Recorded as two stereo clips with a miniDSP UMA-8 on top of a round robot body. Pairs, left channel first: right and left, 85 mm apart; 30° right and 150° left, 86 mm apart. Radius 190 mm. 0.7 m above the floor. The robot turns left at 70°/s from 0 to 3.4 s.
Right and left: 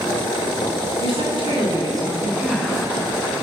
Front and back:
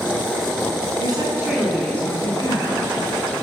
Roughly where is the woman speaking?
Left.